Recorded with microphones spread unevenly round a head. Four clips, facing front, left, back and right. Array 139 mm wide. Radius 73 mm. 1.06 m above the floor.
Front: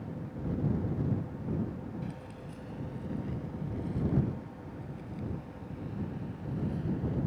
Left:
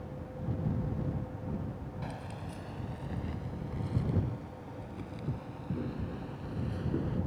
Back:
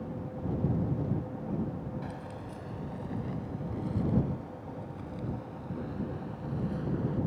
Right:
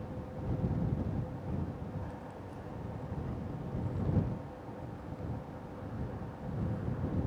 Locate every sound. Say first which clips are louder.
2.0 s keys jangling: left 3 dB, back 2 dB; 105° left; by 7.2 s 115° left